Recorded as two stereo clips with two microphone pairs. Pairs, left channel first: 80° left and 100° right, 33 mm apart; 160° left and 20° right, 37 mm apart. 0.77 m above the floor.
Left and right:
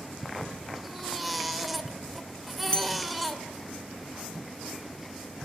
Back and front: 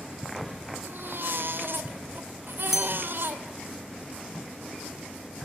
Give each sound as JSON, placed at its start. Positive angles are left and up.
{"t": 0.8, "sound": "a baby crying", "azimuth_deg": -10, "distance_m": 2.5}
{"t": 2.7, "sound": "a bell", "azimuth_deg": 60, "distance_m": 0.9}